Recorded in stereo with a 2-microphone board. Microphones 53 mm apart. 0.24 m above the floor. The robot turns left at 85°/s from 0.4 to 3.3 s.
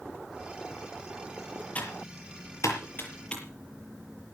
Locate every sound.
1.8 s typing on a keyboard: 30° left (ahead or behind), 6.5 m; by 3.4 s 15° left (ahead or behind), 6.5 m